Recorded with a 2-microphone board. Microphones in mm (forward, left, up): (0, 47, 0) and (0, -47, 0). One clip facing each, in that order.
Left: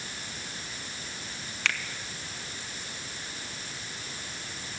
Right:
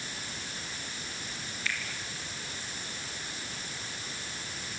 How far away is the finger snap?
About 1.9 m.